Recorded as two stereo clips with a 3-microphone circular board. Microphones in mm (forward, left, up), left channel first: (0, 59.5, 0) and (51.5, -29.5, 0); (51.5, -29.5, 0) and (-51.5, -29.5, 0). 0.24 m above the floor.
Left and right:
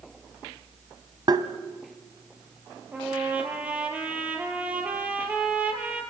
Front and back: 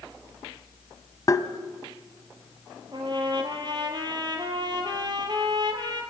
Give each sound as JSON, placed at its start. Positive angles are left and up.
{"t": 1.3, "sound": "tapping", "azimuth_deg": -45, "distance_m": 1.1}
{"t": 2.9, "sound": "a trumpet", "azimuth_deg": -135, "distance_m": 3.0}